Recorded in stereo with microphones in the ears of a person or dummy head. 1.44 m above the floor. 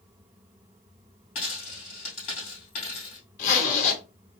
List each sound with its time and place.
1.4 s a dropped coin: 40° left (ahead or behind), 2.5 m
3.4 s a zipper: 40° left (ahead or behind), 1.2 m